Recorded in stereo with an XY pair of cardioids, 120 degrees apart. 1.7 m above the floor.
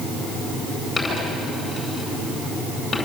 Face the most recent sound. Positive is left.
turn(degrees=20)